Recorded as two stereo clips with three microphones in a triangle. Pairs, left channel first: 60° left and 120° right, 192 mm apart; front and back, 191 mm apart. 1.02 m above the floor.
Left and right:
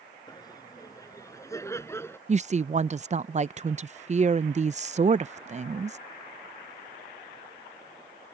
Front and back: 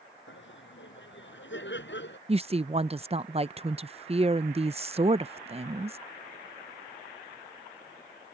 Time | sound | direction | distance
0.3 | laughter | 10° right | ?
2.3 | a woman speaking | 145° right | ?